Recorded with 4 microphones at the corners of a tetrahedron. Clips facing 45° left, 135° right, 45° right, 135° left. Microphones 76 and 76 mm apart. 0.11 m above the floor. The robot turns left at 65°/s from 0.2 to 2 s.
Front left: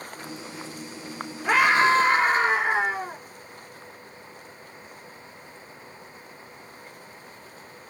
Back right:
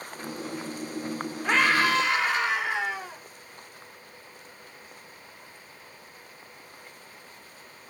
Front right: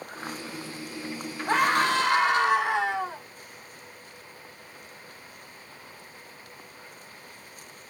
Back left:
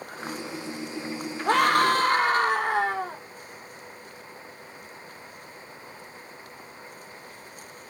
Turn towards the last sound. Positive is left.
turn(degrees=95)